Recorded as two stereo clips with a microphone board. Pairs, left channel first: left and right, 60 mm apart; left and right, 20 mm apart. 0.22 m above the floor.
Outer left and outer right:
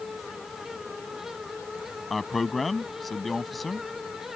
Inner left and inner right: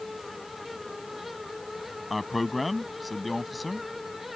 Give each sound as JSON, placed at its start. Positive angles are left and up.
{"t": 2.1, "sound": "a man speaking", "side_deg": 0}